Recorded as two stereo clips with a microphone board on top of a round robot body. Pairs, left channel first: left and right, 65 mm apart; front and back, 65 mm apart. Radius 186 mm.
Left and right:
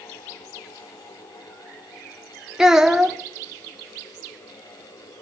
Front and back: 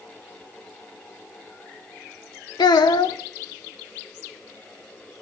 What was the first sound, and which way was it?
A child speaking, 5° right.